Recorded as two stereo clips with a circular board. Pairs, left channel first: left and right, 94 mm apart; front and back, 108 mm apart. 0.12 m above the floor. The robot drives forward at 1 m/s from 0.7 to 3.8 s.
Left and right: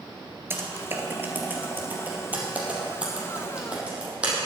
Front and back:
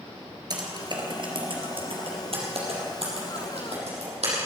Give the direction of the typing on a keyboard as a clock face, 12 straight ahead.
5 o'clock.